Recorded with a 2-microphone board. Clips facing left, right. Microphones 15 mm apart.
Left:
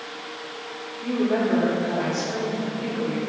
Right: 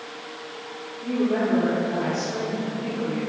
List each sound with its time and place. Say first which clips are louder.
1.0 s a woman speaking: even; 85° left, 2.0 m